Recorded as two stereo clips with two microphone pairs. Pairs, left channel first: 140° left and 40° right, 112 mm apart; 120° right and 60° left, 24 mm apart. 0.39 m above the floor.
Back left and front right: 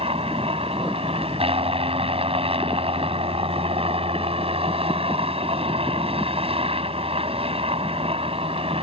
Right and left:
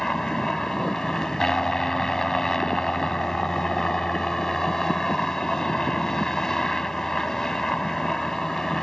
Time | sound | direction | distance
0.0 | a helicopter | 55° right | ?